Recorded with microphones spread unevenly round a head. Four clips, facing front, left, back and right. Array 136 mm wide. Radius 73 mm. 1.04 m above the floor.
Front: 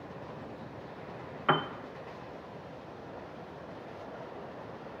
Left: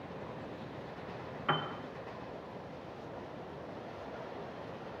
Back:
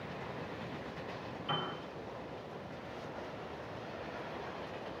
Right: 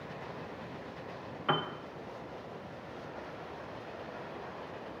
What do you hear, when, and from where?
1.5 s a piano: 20° right, 0.7 m